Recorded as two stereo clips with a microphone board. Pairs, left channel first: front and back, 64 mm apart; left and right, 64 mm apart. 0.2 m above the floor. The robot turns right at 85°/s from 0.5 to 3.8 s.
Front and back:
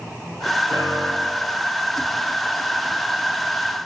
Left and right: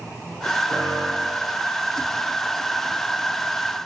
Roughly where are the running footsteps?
I don't hear running footsteps.